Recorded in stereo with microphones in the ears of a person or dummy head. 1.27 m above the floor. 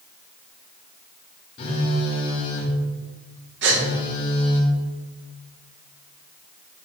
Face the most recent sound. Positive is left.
turn(degrees=-65)  # may be behind; listen again after turning